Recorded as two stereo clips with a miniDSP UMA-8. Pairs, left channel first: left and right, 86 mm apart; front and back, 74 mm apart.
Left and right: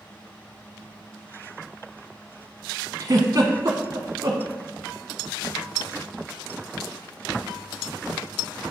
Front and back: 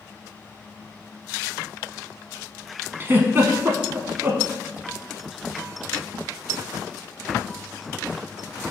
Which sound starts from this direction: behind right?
A giggle, at 3.0 s.